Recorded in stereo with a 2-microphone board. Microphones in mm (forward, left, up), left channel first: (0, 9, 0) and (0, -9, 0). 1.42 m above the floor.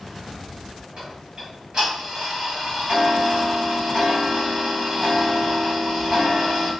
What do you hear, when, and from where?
1.0 s ticking: 40° right (ahead or behind), 1.9 m